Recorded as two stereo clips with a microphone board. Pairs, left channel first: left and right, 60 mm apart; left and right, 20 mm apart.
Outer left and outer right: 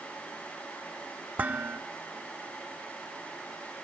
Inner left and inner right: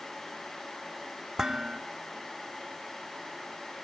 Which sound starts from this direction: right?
Dishes clattering, at 1.4 s.